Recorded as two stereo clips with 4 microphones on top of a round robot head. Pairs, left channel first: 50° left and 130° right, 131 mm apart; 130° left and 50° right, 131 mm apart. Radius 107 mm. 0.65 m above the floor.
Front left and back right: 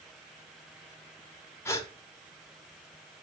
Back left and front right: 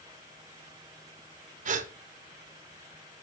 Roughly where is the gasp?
Ahead.